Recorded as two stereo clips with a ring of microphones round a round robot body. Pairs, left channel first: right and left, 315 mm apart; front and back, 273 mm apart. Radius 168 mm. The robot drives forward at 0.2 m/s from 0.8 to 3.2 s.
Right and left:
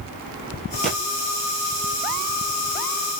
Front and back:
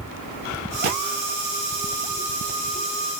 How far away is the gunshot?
About 2.5 m.